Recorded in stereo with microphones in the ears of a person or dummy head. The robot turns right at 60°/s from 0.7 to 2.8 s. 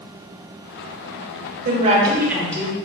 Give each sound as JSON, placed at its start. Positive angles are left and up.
{"t": 1.6, "sound": "a woman speaking", "azimuth_deg": -45, "distance_m": 0.9}